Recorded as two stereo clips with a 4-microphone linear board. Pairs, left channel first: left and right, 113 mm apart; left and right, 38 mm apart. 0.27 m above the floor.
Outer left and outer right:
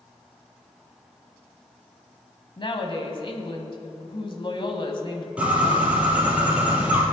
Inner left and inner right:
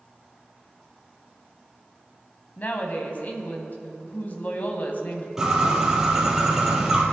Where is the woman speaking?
45° left (ahead or behind), 1.5 m.